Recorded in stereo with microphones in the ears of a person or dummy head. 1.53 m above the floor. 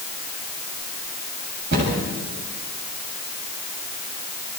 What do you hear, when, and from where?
1.7 s a cupboard door: 60° right (ahead or behind), 8 m